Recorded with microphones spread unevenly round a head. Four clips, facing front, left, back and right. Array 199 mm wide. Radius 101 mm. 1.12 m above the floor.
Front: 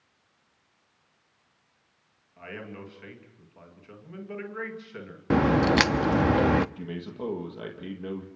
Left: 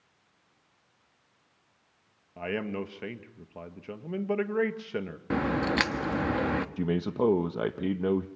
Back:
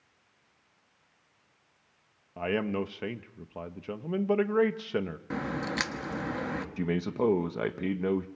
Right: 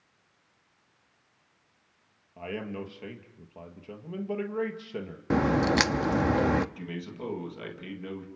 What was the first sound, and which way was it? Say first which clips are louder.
A man speaking: left 3 dB, back 11 dB; 165° left.